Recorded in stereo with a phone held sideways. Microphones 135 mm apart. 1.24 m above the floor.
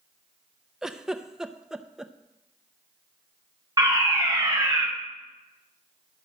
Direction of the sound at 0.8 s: 5° right (ahead or behind).